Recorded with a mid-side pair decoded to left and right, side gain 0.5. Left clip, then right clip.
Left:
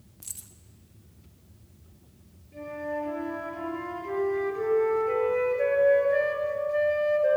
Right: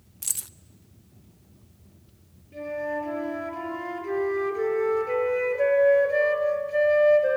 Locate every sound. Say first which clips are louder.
0.2 s keys jangling: right 11 dB; 60° right, 0.6 m
2.5 s a flute: right 3 dB; 30° right, 6 m